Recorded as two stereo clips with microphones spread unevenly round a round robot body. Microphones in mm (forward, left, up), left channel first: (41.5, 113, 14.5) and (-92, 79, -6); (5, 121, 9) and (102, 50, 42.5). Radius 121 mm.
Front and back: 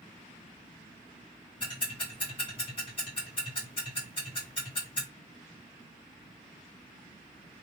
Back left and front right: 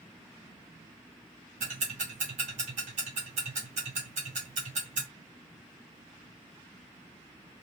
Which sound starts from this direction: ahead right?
Ticking, at 1.6 s.